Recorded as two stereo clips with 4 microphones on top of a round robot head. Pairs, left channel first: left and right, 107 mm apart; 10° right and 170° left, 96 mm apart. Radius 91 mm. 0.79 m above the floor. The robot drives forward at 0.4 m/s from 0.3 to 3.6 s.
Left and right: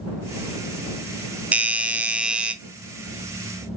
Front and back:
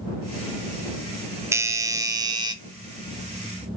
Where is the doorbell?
155° right, 0.9 m; by 2.5 s 170° right, 1.1 m.